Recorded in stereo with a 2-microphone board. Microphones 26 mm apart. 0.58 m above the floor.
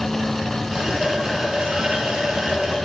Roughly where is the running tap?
Right.